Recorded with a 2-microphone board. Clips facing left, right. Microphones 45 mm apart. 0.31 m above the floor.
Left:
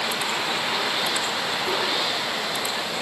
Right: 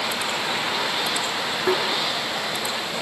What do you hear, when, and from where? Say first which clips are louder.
1.7 s tapping: right 6 dB; 55° right (ahead or behind), 1.8 m